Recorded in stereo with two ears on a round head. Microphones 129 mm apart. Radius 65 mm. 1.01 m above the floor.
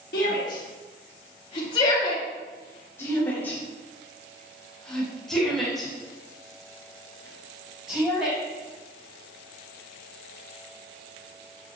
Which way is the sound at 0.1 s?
75° left (ahead or behind).